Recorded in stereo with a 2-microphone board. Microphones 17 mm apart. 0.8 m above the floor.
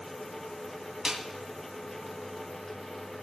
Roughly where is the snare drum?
Right.